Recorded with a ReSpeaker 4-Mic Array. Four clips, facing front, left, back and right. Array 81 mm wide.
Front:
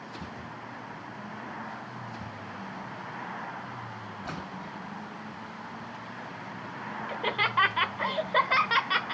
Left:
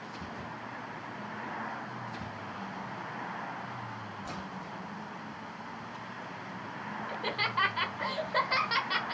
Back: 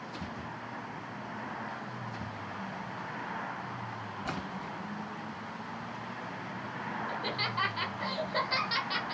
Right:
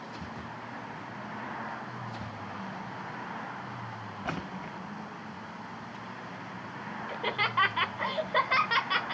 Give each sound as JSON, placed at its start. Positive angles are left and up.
{"t": 4.2, "sound": "a splash", "azimuth_deg": -100, "distance_m": 1.4}
{"t": 7.1, "sound": "laughter", "azimuth_deg": -20, "distance_m": 1.0}